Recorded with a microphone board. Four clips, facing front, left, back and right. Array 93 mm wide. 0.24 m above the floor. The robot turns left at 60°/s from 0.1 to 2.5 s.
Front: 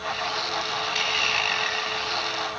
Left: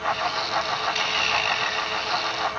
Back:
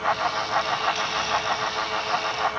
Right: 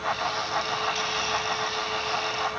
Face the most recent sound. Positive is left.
No sound to turn to.